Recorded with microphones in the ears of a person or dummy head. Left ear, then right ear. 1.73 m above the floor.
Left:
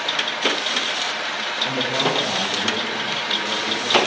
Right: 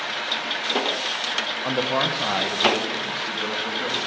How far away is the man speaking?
About 1.1 m.